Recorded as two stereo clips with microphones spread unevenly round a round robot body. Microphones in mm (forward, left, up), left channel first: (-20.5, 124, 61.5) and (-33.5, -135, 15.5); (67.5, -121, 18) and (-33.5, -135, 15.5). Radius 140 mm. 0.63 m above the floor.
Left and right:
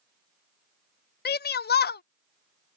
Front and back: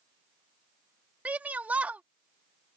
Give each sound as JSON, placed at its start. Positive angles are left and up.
{"t": 1.2, "sound": "a shout", "azimuth_deg": 125}